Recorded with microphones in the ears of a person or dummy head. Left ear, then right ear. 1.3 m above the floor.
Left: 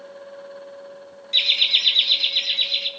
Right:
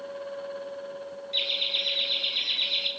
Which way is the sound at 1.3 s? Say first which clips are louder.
Left 9 dB; 65° left (ahead or behind).